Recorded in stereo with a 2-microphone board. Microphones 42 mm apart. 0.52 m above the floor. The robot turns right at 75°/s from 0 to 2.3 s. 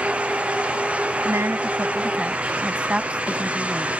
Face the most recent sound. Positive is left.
turn(degrees=-25)